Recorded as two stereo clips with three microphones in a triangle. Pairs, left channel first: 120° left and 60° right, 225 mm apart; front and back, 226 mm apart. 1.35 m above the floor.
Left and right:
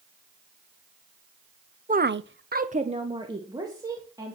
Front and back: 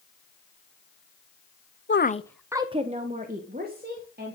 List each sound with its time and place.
1.9 s a woman speaking: 15° right, 0.7 m; by 4.3 s 135° right, 3.5 m